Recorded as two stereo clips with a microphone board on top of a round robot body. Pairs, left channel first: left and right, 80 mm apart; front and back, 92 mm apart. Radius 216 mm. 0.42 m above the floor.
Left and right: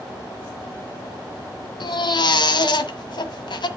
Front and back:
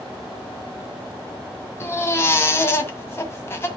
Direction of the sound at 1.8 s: 65° left.